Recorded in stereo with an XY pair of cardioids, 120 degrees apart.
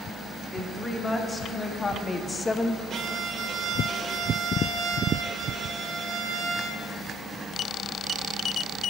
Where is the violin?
50° right, 2.0 m.